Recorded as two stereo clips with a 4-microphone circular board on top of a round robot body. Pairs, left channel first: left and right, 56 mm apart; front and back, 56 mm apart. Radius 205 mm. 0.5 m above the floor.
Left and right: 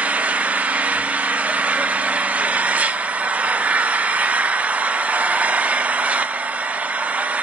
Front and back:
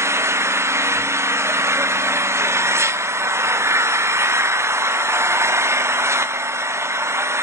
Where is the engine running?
150° right, 1.0 m.